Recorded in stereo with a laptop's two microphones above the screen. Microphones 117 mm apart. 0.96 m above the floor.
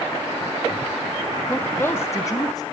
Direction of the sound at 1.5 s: 10° left (ahead or behind).